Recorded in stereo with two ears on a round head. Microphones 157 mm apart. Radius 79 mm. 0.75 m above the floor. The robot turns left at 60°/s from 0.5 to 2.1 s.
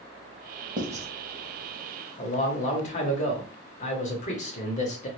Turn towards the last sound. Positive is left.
turn(degrees=40)  # may be behind; listen again after turning